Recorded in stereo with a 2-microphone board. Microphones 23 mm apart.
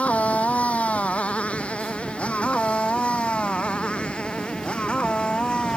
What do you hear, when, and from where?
0.0 s a motorcycle: 75° left (ahead or behind); by 5.8 s 45° left (ahead or behind)